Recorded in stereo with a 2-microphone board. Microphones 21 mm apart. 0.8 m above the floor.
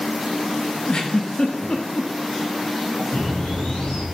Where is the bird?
60° left (ahead or behind), 4.5 m.